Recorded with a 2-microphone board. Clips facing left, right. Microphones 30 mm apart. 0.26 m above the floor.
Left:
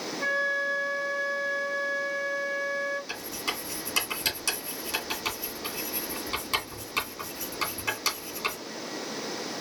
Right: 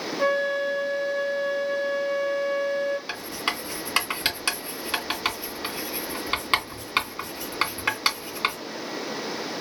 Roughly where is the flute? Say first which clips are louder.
Right 4 dB; right.